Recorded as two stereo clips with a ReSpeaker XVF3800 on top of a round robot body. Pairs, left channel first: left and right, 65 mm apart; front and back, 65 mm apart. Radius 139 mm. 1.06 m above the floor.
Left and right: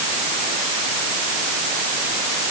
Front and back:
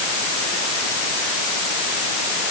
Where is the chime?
No chime in this recording.